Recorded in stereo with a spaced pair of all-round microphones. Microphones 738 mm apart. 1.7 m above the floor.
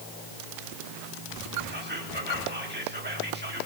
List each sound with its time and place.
1.7 s whispering: 15° right (ahead or behind), 1.9 m